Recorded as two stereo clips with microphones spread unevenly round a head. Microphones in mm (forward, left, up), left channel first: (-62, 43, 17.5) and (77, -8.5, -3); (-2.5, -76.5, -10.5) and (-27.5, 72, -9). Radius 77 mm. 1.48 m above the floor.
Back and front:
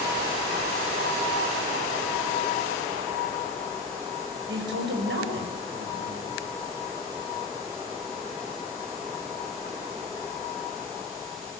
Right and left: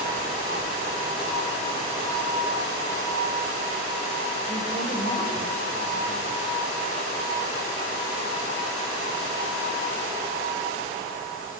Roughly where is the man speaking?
Ahead.